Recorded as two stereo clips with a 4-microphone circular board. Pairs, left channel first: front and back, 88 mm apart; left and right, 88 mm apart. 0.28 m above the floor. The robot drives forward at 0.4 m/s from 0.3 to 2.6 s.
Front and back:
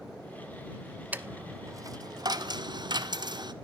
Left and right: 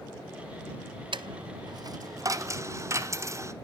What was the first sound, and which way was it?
A dropped coin, 110° right.